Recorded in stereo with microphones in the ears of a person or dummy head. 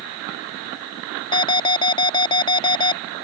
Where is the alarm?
25° left (ahead or behind).